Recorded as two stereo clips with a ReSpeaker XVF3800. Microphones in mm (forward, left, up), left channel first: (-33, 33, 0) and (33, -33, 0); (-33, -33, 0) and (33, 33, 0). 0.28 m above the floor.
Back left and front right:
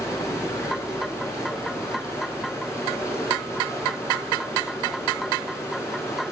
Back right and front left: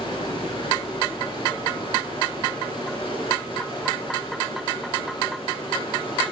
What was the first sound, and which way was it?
Running water, 165° right.